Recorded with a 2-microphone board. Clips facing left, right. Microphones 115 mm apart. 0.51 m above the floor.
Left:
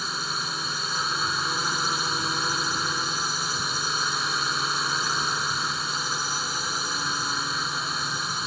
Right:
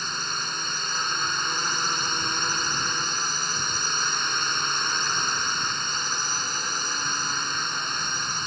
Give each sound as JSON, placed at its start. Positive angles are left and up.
{"t": 0.0, "sound": "a drone", "side_deg": 5}